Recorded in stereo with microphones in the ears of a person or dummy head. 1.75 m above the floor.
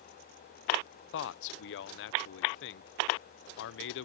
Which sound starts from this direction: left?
A man speaking, at 1.1 s.